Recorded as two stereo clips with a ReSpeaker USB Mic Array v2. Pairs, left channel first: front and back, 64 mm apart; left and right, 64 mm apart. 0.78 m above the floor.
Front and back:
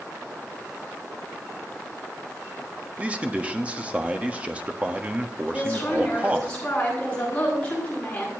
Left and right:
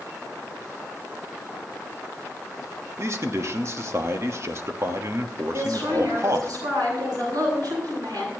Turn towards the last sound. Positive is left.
turn(degrees=-70)